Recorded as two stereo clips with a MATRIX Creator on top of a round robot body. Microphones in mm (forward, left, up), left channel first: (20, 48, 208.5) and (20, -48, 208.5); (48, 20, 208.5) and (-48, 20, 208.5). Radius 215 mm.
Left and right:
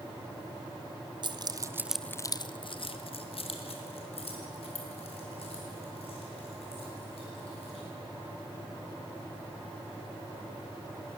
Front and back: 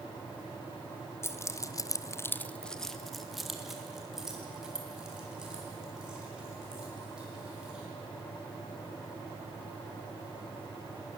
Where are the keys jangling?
60° right, 0.9 m; by 7.8 s 100° left, 5.5 m.